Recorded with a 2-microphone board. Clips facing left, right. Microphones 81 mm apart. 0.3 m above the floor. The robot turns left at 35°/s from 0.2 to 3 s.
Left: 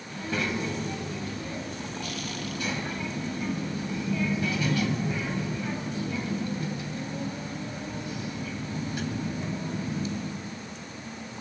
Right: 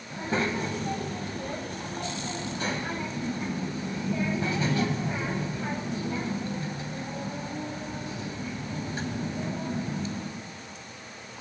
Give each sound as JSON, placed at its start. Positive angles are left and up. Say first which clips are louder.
{"t": 0.1, "sound": "a child speaking", "louder": "right 2 dB", "azimuth_deg": -40, "distance_m": 1.2}